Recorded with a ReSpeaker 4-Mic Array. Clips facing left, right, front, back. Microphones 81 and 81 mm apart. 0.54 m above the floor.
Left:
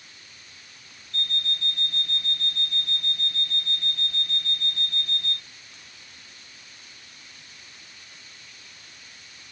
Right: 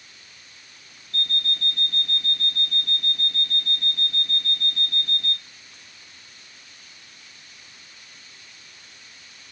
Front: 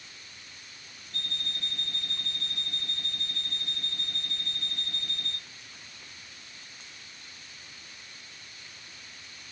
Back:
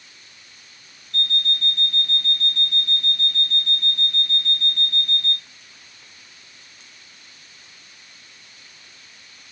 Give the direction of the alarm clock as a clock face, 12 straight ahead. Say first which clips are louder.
Right 2 dB, back 12 dB; 3 o'clock.